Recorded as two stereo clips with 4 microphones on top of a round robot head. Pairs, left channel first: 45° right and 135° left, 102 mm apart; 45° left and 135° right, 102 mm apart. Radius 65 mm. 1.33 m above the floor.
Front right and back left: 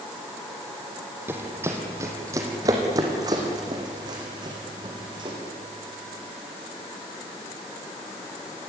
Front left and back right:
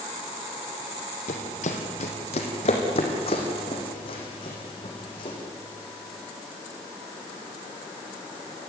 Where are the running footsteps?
65° left, 3 m; by 5.4 s 90° left, 5 m.